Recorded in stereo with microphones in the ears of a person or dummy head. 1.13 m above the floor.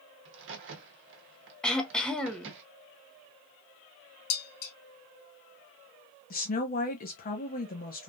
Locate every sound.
0.2 s a crack: 60° right (ahead or behind), 0.9 m
1.6 s throat clearing: centre (ahead or behind), 0.6 m
4.3 s dishes clattering: 80° left, 1.3 m
6.3 s a woman speaking: 40° left (ahead or behind), 1.0 m